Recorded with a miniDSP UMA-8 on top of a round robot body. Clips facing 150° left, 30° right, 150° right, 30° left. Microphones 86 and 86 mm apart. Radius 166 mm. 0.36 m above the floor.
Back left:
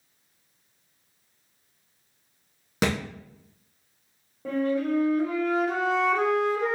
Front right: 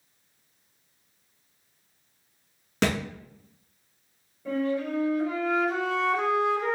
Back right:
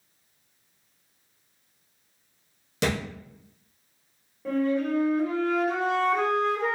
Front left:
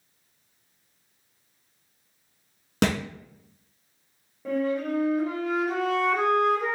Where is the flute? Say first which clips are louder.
Back left 2 dB, back right 1 dB; 115° left, 1.8 m.